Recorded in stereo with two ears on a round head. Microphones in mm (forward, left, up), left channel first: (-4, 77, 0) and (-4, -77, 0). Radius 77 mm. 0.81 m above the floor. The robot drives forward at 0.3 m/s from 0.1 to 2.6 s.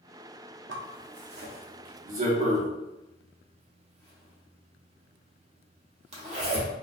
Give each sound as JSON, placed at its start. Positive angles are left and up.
{"t": 0.7, "sound": "a zipper", "side_deg": -75, "distance_m": 0.5}